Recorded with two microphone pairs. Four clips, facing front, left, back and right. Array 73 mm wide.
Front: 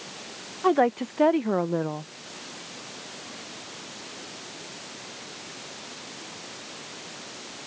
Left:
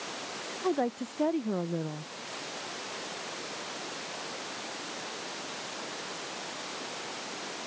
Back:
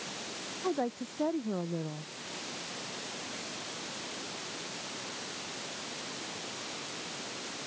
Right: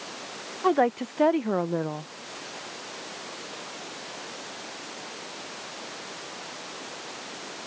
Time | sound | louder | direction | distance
0.6 | a woman speaking | right 7 dB, front 12 dB | 45° right | ?